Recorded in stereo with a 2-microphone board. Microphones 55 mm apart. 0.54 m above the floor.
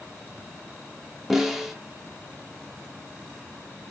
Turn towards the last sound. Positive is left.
turn(degrees=-5)  # may be behind; listen again after turning